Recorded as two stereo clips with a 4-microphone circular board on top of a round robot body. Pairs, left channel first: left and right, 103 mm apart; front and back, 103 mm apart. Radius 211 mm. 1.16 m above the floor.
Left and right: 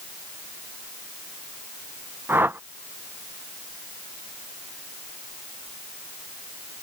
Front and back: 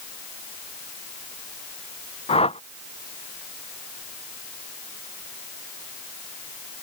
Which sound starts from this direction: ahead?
A whoosh, at 2.3 s.